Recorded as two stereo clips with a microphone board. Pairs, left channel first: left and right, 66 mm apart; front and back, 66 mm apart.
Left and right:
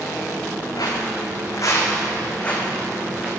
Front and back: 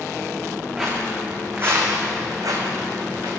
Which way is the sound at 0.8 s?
100° left.